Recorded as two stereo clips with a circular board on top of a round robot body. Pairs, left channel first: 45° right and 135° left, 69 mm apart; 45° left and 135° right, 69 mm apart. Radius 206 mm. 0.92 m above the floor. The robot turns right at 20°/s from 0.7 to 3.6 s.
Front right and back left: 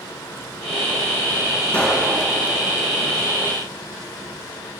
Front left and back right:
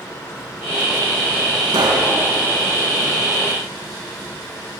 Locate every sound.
1.7 s a pop: 120° right, 4 m; by 2.1 s 110° right, 4 m